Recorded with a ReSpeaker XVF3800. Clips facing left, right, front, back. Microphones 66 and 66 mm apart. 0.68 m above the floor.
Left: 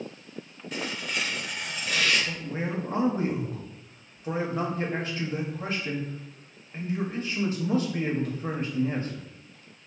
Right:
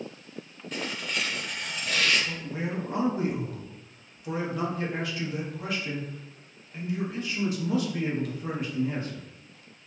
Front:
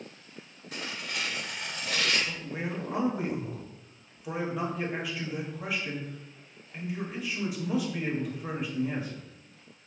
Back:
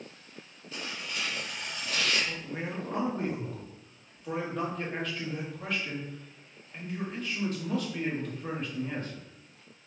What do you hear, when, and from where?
0.7 s tearing paper: 5° left, 0.6 m
2.3 s a man speaking: 75° left, 0.6 m